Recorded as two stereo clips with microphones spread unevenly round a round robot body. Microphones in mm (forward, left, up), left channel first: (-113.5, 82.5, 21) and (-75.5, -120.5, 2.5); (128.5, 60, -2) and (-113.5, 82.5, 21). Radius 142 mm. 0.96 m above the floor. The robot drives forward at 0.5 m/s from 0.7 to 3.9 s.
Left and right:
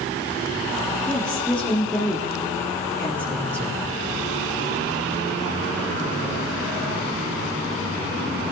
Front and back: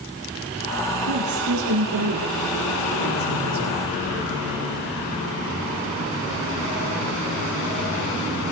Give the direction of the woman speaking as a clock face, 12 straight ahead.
6 o'clock.